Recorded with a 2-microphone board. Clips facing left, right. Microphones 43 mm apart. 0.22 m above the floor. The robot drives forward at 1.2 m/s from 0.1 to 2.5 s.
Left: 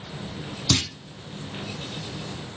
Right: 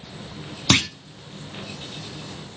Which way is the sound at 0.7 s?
55° right (ahead or behind).